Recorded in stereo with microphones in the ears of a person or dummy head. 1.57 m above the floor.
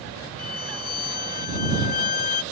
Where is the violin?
50° left (ahead or behind).